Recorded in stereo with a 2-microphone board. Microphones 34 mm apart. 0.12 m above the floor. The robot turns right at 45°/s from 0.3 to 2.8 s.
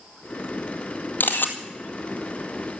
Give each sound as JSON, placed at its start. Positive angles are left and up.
{"t": 1.2, "sound": "a camera shutter", "side_deg": 70, "distance_m": 1.8}